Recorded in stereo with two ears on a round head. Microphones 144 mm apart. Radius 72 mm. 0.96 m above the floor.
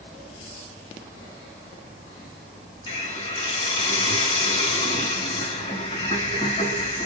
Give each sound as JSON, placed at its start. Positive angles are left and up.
{"t": 2.9, "sound": "a hiss", "side_deg": 35, "distance_m": 5.0}